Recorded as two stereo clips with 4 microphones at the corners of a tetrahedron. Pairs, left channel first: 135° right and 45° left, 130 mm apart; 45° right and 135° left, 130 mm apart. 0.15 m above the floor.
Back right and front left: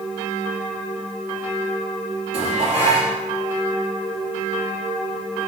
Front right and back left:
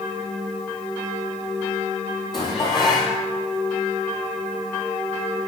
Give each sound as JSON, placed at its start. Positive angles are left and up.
{"t": 2.3, "sound": "dishes clattering", "azimuth_deg": 5, "distance_m": 3.0}